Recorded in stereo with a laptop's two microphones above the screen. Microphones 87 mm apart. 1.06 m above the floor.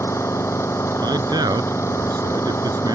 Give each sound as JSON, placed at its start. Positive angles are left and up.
{"t": 0.0, "sound": "an engine running", "side_deg": 35}
{"t": 1.0, "sound": "a man speaking", "side_deg": -55}